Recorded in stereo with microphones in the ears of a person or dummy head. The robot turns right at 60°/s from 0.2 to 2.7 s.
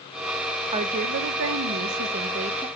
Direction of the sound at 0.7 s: 150° right.